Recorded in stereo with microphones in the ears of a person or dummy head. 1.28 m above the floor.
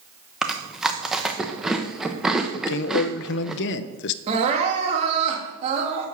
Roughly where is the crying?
Right.